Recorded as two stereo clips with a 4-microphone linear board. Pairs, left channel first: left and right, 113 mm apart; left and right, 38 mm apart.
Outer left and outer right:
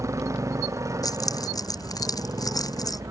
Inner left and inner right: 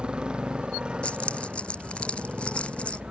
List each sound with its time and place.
0.0 s a motorcycle: 25° right (ahead or behind)
1.0 s keys jangling: 35° left (ahead or behind)